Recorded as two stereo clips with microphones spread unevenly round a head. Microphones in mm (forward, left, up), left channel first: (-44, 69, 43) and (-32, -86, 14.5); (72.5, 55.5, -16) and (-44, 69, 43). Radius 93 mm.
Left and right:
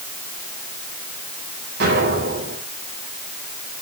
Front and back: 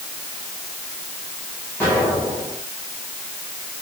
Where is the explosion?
90° right, 9 m.